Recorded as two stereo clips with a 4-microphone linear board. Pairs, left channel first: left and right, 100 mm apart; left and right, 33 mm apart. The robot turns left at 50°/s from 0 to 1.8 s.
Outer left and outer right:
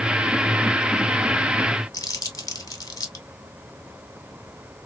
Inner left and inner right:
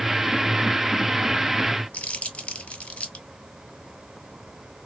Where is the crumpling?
35° left (ahead or behind), 1.7 m.